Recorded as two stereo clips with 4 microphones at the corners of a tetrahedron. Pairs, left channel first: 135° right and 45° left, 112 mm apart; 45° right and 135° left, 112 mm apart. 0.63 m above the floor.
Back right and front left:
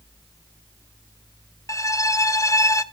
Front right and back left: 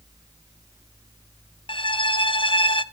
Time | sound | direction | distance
1.7 | a violin | 75° right | 0.6 m